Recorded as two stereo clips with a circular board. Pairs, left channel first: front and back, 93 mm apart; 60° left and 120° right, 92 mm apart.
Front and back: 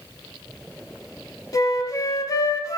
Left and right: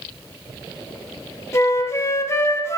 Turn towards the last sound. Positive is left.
turn(degrees=20)